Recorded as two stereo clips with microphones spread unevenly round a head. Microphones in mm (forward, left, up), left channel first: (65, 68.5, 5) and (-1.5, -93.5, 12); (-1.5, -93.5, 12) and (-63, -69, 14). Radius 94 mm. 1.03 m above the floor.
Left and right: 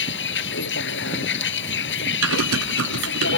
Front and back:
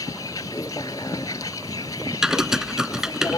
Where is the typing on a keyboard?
120° right.